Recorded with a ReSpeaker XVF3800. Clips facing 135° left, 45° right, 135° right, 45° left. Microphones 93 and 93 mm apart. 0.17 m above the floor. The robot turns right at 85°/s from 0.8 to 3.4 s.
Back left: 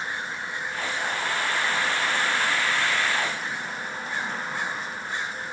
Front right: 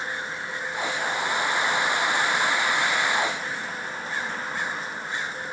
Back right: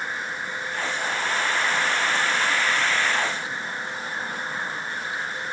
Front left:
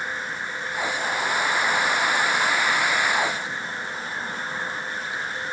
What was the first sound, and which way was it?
Only background noise.